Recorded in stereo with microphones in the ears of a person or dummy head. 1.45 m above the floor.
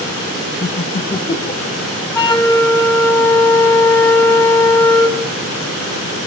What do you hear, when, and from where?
0.6 s laughter: 25° left (ahead or behind), 0.7 m; by 1.8 s 20° left (ahead or behind), 2.5 m
2.1 s a flute: 10° left (ahead or behind), 4 m